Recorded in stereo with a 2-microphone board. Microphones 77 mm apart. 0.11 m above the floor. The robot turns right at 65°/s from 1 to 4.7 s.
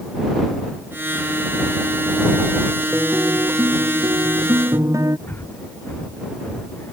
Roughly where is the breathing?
Left.